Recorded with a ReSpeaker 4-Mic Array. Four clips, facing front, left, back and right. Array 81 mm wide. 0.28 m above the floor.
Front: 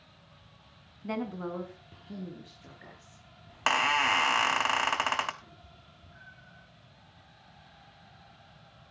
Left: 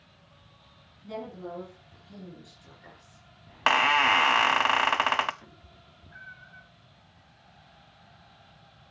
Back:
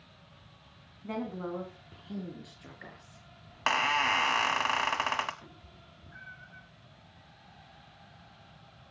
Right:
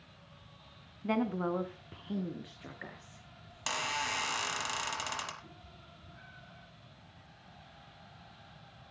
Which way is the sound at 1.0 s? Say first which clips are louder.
Right 6 dB, front 1 dB; 70° right.